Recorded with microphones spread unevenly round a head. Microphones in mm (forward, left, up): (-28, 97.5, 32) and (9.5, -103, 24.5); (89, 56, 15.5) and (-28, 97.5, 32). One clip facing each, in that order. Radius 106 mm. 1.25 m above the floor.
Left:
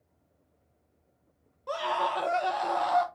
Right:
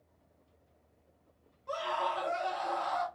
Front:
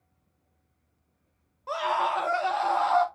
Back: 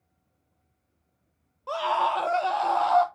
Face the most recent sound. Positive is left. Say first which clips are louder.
# left 4 dB, back 2 dB
turn(degrees=85)